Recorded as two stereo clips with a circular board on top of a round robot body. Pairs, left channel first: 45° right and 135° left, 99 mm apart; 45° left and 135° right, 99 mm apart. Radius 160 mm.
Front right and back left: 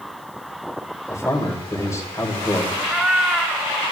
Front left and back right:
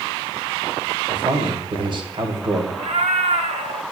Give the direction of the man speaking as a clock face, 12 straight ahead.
3 o'clock.